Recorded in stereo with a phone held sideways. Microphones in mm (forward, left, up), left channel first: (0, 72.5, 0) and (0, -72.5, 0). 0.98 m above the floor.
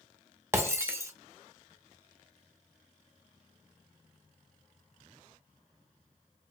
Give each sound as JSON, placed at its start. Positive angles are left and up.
{"t": 0.5, "sound": "breaking glass", "side_deg": -20, "distance_m": 0.7}